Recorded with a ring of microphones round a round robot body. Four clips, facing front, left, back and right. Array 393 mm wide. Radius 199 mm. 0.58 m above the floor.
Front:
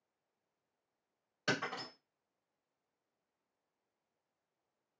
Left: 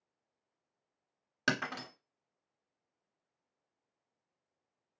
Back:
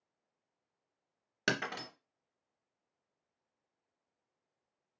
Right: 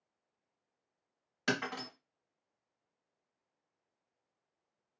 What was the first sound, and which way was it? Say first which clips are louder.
Breaking glass: left 1 dB, back 2 dB; 145° left.